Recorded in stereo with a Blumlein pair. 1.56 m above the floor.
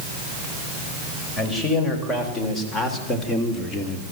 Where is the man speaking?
25° left, 6 m; by 4.0 s 20° left, 3 m.